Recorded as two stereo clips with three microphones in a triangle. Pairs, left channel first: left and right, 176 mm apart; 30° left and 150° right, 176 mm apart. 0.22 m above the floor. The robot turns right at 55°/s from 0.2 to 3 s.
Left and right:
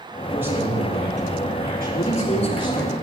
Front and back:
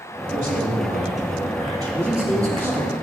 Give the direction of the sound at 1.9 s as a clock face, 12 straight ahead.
8 o'clock.